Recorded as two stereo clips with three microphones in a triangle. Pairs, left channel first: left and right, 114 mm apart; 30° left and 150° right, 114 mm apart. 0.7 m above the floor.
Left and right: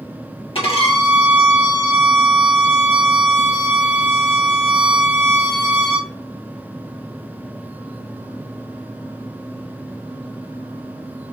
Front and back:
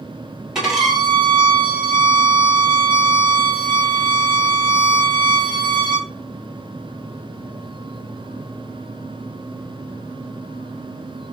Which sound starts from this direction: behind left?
A violin, at 0.6 s.